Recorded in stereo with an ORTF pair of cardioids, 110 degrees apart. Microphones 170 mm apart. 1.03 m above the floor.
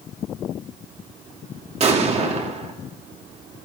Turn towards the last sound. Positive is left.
turn(degrees=-40)